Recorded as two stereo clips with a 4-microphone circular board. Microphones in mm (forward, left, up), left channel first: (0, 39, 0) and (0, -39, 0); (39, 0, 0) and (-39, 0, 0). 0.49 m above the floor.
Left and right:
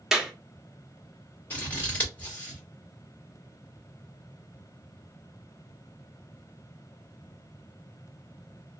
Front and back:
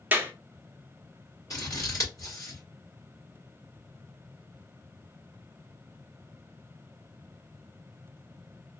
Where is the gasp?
I don't hear a gasp.